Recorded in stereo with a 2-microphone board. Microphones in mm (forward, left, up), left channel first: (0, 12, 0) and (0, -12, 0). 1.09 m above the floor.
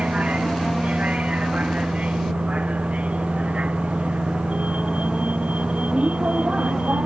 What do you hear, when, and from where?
0.0 s a vehicle: 60° right (ahead or behind)